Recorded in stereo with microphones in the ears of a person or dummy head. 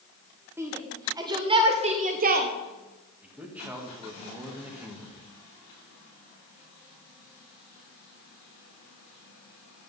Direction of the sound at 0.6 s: 10° right (ahead or behind).